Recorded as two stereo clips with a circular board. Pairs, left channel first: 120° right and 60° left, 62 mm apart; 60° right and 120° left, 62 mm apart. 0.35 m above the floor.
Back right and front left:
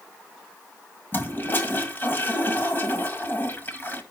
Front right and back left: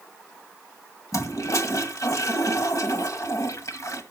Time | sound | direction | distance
1.1 | a toilet flushing | 70° right | 1.9 m